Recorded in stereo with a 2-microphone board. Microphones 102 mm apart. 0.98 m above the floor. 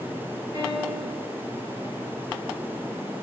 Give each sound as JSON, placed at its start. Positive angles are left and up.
{"t": 0.5, "sound": "a piano", "side_deg": -15, "distance_m": 1.3}